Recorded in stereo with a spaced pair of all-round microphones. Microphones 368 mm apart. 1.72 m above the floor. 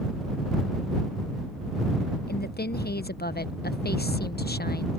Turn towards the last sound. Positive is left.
turn(degrees=25)  # may be behind; listen again after turning